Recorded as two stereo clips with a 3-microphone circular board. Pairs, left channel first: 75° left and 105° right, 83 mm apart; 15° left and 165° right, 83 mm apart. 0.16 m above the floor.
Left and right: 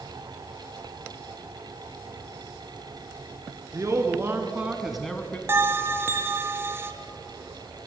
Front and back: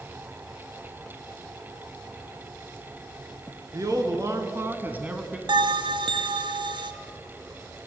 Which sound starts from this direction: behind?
A bell, at 5.5 s.